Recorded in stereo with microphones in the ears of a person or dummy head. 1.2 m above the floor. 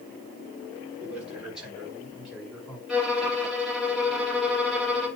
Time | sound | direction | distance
1.0 | a man speaking | 5° right (ahead or behind) | 3.5 m
2.9 | a violin | 5° right (ahead or behind) | 2.5 m